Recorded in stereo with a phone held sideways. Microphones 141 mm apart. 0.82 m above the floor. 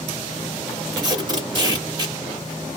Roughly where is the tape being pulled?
Right.